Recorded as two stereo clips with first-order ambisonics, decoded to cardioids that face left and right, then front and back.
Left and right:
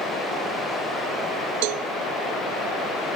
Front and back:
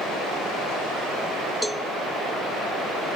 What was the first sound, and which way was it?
A cowbell, 90° right.